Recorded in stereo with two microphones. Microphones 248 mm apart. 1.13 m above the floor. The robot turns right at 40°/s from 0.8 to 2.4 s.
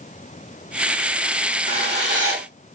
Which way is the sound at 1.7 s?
30° right (ahead or behind).